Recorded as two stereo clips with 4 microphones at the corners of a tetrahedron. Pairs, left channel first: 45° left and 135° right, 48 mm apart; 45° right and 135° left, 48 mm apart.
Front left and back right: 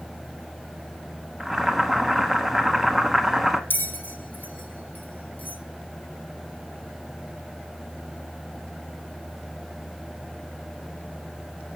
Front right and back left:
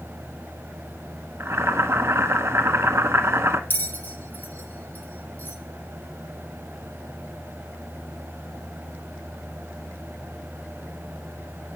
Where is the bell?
Straight ahead, 1.0 m.